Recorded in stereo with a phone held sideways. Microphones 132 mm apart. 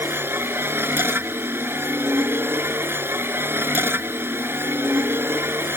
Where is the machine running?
15° right (ahead or behind).